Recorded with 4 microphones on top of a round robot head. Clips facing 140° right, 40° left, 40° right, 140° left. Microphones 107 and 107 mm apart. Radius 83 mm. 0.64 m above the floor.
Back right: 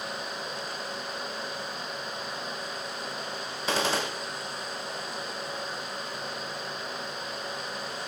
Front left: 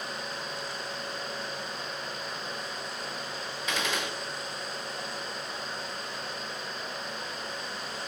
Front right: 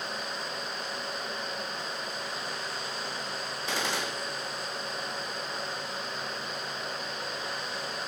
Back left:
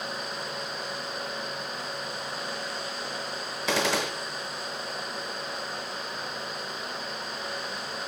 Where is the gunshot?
165° left, 1.2 m.